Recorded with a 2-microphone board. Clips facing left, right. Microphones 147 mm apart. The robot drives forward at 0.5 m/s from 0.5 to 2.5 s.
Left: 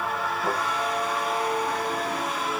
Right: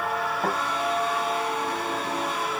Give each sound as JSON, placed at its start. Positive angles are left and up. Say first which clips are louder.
{"t": 0.4, "sound": "a thud", "louder": "even", "side_deg": -65, "distance_m": 6.0}